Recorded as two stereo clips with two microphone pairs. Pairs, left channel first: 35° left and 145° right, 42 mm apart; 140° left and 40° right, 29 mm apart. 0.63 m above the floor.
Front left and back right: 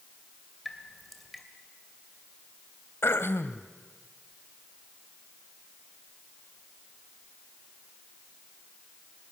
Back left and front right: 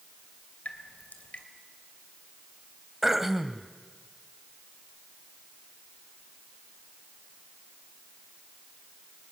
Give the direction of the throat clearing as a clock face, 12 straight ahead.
11 o'clock.